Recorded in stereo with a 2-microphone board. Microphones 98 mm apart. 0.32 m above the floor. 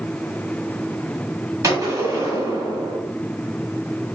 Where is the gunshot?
30° right (ahead or behind), 1.9 m.